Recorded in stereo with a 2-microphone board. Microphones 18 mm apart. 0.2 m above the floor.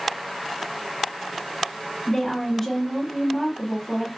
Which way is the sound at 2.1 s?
20° left (ahead or behind).